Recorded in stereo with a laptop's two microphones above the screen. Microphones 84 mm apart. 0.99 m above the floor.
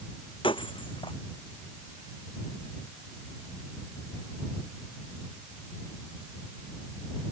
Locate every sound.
0.4 s breaking glass: 80° left